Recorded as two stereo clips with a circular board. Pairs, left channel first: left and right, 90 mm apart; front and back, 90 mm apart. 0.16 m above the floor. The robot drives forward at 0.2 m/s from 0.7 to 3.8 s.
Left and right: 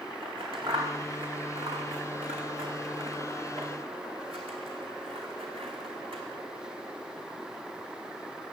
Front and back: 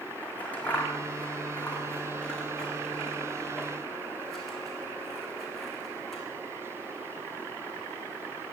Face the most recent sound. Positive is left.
turn(degrees=-85)